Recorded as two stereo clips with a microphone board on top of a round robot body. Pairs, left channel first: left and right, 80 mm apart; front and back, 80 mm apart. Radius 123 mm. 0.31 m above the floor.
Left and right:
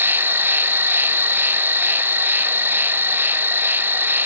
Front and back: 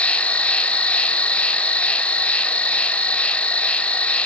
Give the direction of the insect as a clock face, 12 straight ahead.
2 o'clock.